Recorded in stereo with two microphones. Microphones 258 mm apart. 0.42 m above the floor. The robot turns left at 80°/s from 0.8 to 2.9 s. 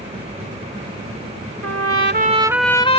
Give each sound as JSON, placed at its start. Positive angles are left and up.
{"t": 1.6, "sound": "a trumpet", "azimuth_deg": -100}